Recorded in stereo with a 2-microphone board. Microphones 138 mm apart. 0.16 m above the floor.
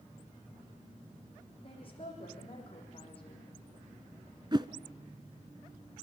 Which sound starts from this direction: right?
A whoosh, at 4.5 s.